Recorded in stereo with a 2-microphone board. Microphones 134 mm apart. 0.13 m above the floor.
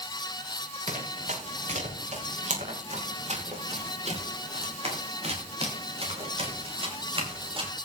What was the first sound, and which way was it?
Running footsteps, 70° right (ahead or behind).